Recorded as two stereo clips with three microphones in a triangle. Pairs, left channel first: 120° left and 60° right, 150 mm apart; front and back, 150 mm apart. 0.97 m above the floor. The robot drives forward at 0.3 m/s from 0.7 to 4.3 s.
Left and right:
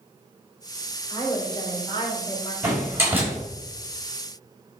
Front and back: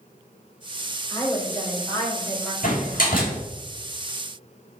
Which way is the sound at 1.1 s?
60° left.